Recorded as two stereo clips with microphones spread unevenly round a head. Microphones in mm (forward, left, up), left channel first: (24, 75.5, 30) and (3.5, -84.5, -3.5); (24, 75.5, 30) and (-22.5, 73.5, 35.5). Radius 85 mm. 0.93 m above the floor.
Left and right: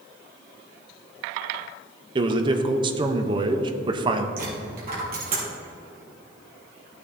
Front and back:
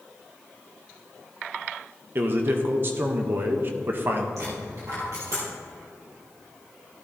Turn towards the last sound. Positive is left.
turn(degrees=-140)